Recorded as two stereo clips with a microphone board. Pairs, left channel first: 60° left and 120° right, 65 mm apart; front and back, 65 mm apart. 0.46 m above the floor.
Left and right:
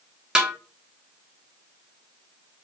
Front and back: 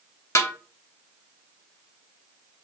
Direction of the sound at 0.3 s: 45° right.